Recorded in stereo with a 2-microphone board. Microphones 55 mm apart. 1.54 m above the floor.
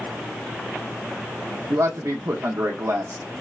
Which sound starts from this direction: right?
A man speaking, at 1.7 s.